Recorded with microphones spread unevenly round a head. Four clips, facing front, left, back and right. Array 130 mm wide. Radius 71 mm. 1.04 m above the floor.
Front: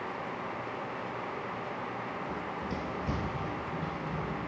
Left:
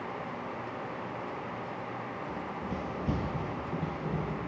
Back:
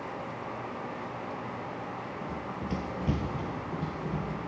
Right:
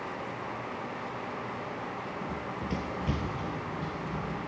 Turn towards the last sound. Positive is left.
turn(degrees=130)